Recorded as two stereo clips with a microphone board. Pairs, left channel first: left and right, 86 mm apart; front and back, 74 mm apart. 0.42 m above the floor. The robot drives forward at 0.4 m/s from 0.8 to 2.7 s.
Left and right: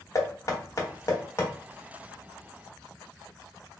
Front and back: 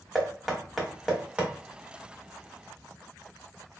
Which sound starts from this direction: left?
Knocking, at 0.1 s.